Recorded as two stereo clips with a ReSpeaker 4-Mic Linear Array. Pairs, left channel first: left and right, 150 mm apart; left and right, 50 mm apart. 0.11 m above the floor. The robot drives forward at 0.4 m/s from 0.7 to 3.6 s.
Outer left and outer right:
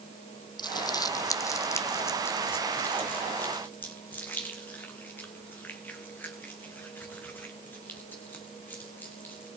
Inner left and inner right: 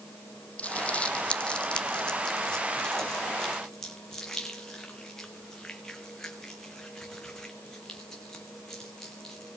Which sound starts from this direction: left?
Crumpling, at 0.6 s.